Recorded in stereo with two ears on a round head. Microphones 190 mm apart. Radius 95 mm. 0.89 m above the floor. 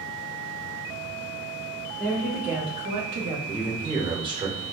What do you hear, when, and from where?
2.0 s a woman speaking: 10° left (ahead or behind), 1.8 m; by 3.4 s 65° right (ahead or behind), 1.3 m
3.5 s a man speaking: 20° right (ahead or behind), 1.0 m